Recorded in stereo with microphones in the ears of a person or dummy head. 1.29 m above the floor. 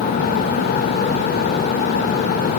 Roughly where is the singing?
No singing in this recording.